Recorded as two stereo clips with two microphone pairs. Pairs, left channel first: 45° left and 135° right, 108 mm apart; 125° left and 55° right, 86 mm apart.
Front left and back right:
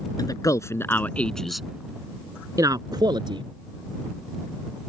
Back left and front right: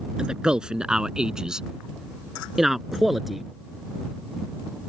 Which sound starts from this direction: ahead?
A man speaking, at 0.2 s.